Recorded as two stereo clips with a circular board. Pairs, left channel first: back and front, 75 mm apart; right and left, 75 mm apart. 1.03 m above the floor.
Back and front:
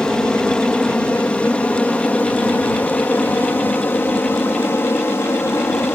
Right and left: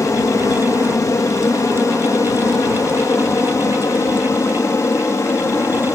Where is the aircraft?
105° right; by 6.0 s 130° right.